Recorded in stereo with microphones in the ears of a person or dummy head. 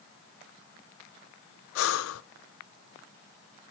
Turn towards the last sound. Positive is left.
turn(degrees=75)  # may be behind; listen again after turning